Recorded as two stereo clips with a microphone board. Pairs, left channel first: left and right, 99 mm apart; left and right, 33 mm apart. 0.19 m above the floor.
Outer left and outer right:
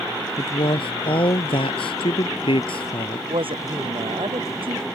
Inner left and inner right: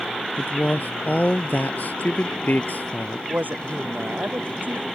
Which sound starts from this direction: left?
A man speaking, at 0.4 s.